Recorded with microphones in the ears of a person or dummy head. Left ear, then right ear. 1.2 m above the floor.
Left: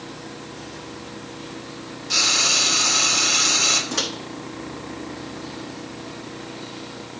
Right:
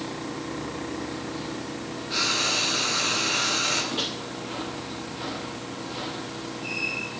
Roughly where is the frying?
Left.